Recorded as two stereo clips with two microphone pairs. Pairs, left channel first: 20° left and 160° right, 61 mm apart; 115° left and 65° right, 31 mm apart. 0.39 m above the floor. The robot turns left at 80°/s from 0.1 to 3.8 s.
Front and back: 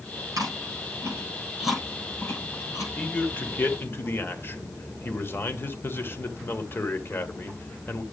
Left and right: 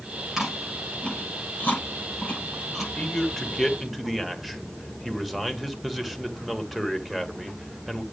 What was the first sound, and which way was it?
Chewing, 140° right.